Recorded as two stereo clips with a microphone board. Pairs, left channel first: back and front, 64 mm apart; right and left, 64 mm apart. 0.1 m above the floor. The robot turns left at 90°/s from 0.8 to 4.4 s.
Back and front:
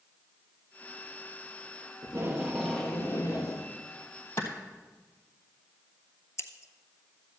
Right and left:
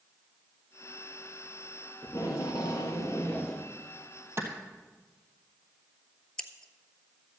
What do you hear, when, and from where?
2.0 s tape being pulled: 40° right, 2.5 m; by 3.7 s 170° left, 2.5 m
4.4 s a clap: 130° left, 2 m
6.4 s scissors: 165° right, 0.8 m